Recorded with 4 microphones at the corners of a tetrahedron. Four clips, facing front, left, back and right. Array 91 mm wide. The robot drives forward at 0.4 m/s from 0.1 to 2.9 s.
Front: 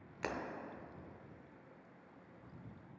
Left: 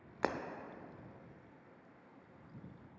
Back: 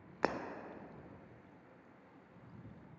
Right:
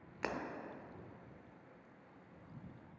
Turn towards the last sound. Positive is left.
turn(degrees=170)